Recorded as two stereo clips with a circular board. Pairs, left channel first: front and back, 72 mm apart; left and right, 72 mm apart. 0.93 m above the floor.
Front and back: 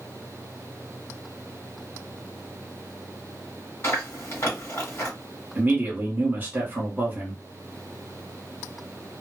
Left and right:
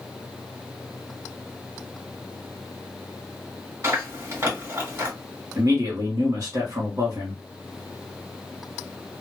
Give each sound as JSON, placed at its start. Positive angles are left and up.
{"t": 3.8, "sound": "chewing", "azimuth_deg": -45, "distance_m": 1.5}
{"t": 5.5, "sound": "a man speaking", "azimuth_deg": -120, "distance_m": 1.5}